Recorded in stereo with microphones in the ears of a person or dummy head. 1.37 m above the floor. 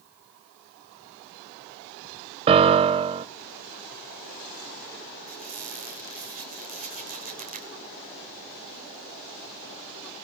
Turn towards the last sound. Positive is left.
turn(degrees=-40)  # may be behind; listen again after turning